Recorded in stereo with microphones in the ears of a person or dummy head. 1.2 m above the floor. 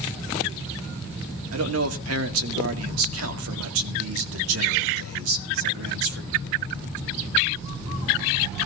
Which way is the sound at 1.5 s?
75° right (ahead or behind).